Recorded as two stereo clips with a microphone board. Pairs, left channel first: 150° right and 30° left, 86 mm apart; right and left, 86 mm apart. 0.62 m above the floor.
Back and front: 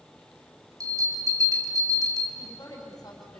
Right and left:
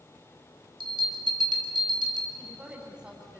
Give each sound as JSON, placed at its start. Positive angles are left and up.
{"t": 0.8, "sound": "a bell", "azimuth_deg": 75, "distance_m": 3.5}
{"t": 2.4, "sound": "a woman speaking", "azimuth_deg": 165, "distance_m": 4.5}